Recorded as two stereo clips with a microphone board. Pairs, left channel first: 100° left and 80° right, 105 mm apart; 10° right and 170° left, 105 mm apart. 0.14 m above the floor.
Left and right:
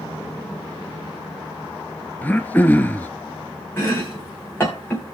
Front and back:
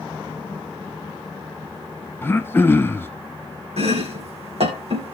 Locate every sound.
2.2 s throat clearing: 40° left, 0.8 m
3.8 s chopping: 170° left, 3.5 m